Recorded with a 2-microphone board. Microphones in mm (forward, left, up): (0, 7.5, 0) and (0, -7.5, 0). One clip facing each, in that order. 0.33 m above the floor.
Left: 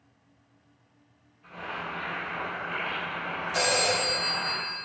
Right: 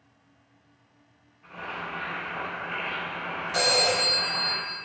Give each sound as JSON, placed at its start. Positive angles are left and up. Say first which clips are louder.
{"t": 1.4, "sound": "boiling", "louder": "even", "side_deg": -20, "distance_m": 1.9}
{"t": 3.5, "sound": "a phone ringing", "louder": "right 3 dB", "side_deg": -20, "distance_m": 1.8}